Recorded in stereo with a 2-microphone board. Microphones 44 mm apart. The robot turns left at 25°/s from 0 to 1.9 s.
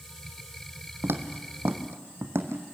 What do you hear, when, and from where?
1.0 s footsteps: 60° right (ahead or behind), 1.4 m; by 2.7 s 75° right (ahead or behind), 2 m